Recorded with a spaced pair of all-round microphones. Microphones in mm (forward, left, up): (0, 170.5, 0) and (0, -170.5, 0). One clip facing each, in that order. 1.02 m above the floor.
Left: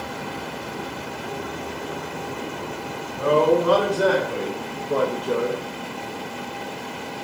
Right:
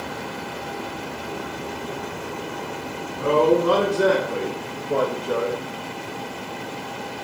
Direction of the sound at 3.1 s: 40° right (ahead or behind).